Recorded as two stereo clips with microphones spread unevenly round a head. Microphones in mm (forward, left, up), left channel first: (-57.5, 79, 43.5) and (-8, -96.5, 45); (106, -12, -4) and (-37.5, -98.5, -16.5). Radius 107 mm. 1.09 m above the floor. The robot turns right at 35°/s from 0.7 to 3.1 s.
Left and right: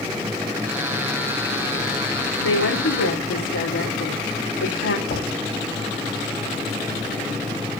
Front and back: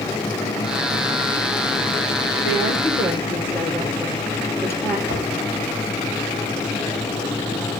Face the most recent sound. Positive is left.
turn(degrees=45)